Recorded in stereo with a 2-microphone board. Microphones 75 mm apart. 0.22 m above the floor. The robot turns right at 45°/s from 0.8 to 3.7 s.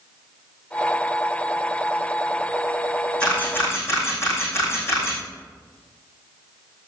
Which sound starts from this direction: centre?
A camera shutter, at 3.2 s.